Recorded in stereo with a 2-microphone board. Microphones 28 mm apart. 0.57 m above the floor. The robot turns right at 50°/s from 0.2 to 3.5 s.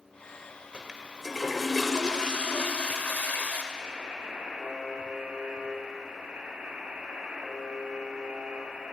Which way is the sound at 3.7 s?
75° right (ahead or behind).